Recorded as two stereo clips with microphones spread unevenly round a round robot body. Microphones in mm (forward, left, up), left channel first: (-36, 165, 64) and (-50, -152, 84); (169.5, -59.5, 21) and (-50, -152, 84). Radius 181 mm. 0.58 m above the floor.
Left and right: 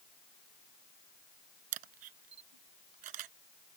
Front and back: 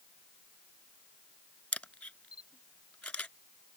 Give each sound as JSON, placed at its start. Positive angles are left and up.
{"t": 1.7, "sound": "a camera shutter", "azimuth_deg": -65}